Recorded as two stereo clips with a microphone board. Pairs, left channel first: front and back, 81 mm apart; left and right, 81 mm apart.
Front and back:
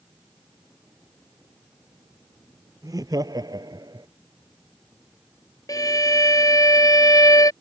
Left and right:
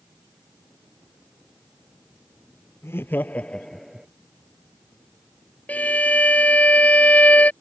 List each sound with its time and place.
2.8 s laughter: 145° left; by 4.1 s 170° right
5.7 s a violin: 25° left